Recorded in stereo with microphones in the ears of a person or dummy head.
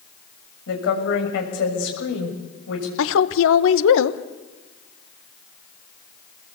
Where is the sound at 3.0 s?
70° left (ahead or behind), 1.3 m.